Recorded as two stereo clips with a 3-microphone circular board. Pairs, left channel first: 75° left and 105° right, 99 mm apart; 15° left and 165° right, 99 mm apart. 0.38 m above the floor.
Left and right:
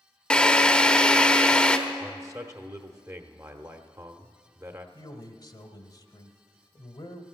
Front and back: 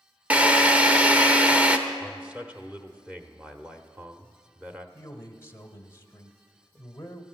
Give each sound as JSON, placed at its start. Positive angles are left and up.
{"t": 0.3, "sound": "a drill", "azimuth_deg": 140, "distance_m": 0.9}
{"t": 2.0, "sound": "a man speaking", "azimuth_deg": -100, "distance_m": 0.9}
{"t": 5.0, "sound": "a man speaking", "azimuth_deg": 65, "distance_m": 1.2}